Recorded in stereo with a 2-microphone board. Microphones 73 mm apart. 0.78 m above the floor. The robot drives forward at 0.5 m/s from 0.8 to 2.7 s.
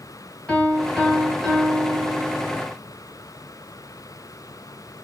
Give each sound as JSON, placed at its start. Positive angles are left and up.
{"t": 0.5, "sound": "a piano", "side_deg": 15, "distance_m": 1.1}